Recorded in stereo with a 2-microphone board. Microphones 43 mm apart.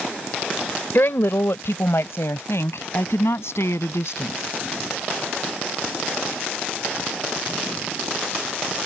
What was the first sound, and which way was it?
A woman speaking, 60° left (ahead or behind).